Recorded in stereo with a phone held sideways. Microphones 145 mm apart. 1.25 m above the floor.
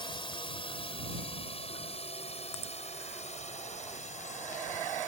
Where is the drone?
35° left (ahead or behind); by 5.1 s 60° left (ahead or behind).